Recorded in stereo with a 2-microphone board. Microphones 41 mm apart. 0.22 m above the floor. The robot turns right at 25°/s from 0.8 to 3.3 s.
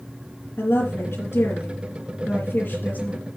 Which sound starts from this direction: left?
A woman speaking, at 0.6 s.